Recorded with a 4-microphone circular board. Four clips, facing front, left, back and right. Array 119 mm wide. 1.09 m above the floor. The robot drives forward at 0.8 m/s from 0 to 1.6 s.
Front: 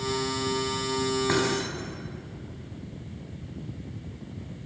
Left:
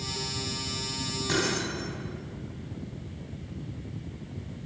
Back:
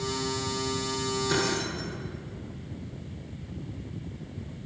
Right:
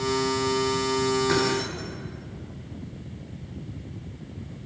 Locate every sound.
1.3 s keys jangling: 5° right, 5 m